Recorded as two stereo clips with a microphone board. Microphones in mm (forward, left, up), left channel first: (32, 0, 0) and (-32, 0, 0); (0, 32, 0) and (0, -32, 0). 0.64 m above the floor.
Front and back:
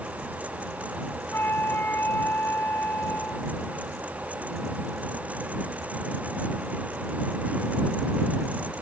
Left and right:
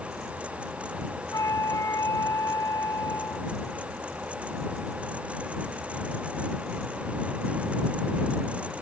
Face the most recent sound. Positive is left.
turn(degrees=55)